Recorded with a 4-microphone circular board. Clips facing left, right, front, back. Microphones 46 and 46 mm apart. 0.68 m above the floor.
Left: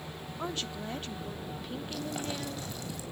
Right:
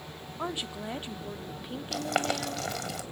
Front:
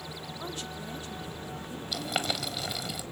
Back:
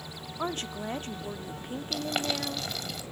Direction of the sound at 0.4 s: 160° right.